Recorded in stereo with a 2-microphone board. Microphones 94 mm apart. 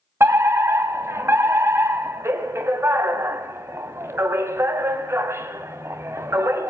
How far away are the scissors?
No scissors in this recording.